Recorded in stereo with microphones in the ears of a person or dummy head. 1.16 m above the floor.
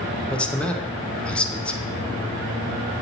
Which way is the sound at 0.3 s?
10° left (ahead or behind).